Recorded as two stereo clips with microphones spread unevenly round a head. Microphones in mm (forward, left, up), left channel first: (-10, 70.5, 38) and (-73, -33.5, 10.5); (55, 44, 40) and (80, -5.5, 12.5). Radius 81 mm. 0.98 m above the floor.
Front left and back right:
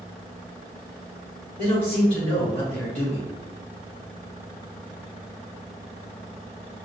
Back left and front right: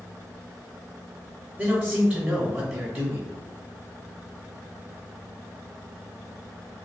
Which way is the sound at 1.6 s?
5° left.